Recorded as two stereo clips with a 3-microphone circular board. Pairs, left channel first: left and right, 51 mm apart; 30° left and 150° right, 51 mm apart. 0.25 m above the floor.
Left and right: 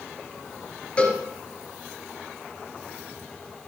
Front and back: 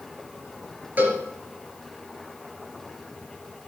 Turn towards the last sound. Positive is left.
turn(degrees=155)